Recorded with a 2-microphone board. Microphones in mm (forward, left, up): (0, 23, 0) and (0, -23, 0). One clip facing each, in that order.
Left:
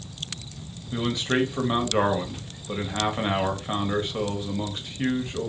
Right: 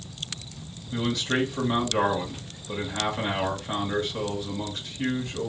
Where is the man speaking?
25° left (ahead or behind), 1.4 m.